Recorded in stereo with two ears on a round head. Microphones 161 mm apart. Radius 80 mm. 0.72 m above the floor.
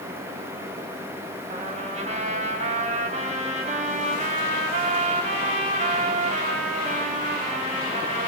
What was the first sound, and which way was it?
A trumpet, 40° right (ahead or behind).